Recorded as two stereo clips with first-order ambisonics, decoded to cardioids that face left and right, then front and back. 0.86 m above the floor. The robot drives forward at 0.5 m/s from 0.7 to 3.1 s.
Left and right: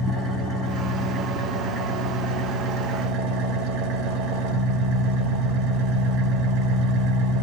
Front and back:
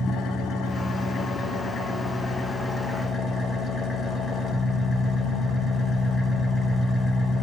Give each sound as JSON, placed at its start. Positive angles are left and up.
{"t": 0.0, "sound": "an engine running", "azimuth_deg": -45, "distance_m": 1.8}